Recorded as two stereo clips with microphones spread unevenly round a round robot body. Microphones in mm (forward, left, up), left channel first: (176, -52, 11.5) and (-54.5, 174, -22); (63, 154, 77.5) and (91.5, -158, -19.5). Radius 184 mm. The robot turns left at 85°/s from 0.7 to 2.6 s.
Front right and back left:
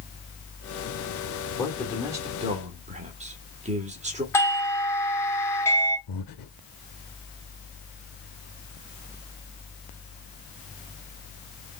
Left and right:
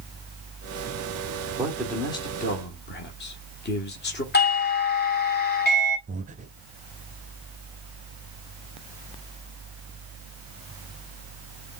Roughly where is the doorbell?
Ahead left.